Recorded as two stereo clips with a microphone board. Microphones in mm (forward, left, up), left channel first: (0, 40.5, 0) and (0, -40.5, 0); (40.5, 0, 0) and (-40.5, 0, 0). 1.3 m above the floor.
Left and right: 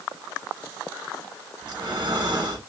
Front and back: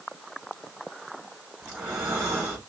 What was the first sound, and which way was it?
Breathing, 115° right.